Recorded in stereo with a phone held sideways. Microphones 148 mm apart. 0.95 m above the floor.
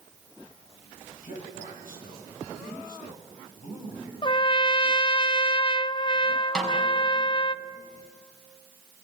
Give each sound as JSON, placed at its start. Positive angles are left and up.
{"t": 1.2, "sound": "a man speaking", "side_deg": 70, "distance_m": 6.5}
{"t": 4.2, "sound": "a trumpet", "side_deg": 35, "distance_m": 0.5}
{"t": 6.5, "sound": "a snare drum", "side_deg": 5, "distance_m": 4.5}